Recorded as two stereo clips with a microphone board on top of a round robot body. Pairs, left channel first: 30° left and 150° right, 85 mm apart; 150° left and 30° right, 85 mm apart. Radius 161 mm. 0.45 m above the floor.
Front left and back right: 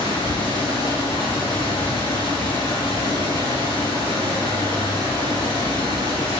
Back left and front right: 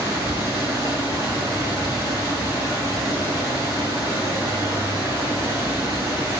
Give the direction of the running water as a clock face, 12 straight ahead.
11 o'clock.